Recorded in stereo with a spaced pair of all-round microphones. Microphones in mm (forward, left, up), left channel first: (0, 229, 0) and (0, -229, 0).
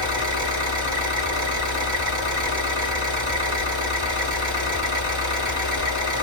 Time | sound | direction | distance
0.0 | an engine running | 40° right (ahead or behind) | 2 m